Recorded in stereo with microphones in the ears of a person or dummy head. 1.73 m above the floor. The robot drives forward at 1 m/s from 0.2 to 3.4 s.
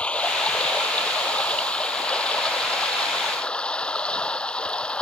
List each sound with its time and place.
0.0 s running water: 5° left (ahead or behind)